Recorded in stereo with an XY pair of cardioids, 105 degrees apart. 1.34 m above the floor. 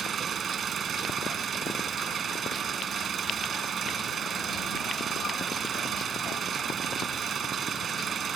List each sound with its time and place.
0.0 s an engine running: 50° right